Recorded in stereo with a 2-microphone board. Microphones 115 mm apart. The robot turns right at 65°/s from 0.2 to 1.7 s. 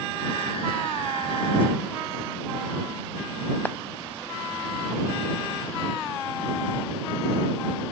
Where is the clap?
15° left (ahead or behind).